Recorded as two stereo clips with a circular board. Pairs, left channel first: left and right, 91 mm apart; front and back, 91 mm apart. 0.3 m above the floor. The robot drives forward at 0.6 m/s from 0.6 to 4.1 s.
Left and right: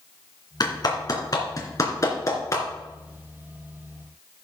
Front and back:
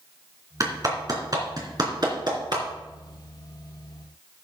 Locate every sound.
0.6 s a clap: 130° left, 3 m; by 2.6 s 145° left, 3.5 m